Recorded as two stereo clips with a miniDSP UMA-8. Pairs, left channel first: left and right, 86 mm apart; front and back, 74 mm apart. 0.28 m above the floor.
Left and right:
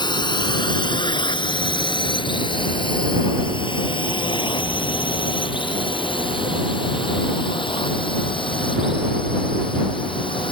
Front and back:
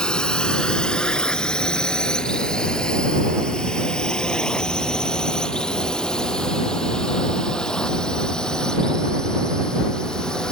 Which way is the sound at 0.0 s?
80° left.